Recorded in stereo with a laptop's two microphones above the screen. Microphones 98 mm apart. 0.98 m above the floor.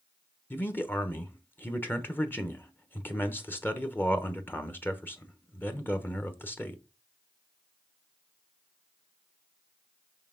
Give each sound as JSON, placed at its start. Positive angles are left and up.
{"t": 0.5, "sound": "a man speaking", "side_deg": 20, "distance_m": 0.9}